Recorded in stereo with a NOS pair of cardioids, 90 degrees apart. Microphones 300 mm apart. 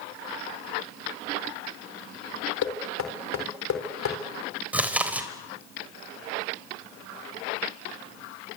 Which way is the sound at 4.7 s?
5° right.